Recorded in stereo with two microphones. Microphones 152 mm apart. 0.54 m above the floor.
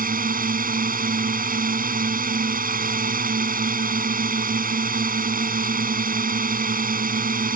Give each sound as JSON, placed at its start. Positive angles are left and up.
{"t": 0.0, "sound": "a drone", "side_deg": -75}